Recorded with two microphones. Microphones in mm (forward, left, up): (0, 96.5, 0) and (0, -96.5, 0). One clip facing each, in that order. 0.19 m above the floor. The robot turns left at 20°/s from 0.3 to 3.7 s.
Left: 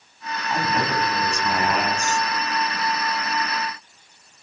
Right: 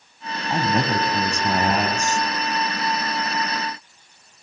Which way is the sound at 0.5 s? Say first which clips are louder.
Right 3 dB; 45° right.